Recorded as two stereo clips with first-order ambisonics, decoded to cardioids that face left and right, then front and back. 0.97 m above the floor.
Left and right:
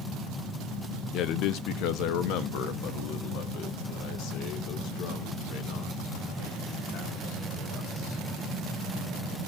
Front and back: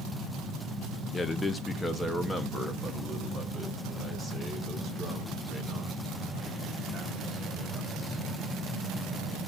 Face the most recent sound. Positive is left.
turn(degrees=90)